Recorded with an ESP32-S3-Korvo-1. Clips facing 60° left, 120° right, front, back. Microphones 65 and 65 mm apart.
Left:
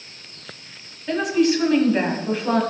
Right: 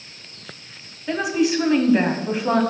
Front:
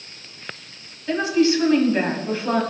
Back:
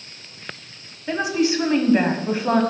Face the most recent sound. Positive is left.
turn(degrees=170)